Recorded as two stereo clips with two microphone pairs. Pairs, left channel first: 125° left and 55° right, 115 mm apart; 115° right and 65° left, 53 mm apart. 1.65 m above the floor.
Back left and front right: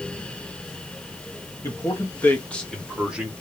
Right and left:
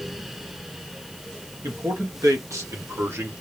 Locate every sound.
1.6 s a man speaking: 65° left, 1.9 m; by 3.3 s 20° left, 1.4 m